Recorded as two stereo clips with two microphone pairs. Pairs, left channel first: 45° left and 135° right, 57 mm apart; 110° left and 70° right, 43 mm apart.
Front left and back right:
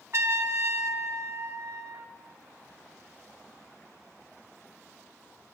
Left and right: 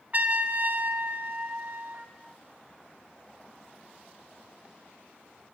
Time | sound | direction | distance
0.1 | a trumpet | 110° right | 0.7 m